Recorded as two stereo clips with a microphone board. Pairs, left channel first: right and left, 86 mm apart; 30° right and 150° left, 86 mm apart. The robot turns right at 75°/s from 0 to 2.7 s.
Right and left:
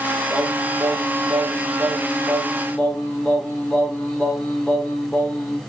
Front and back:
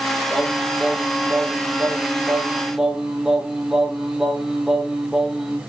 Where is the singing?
45° left, 1.1 m; by 5.6 s 135° right, 1.1 m.